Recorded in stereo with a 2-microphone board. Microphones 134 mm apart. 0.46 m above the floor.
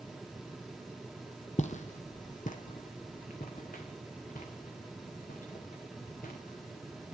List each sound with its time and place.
1.6 s footsteps: 60° left (ahead or behind), 0.8 m; by 7.1 s 80° left, 4 m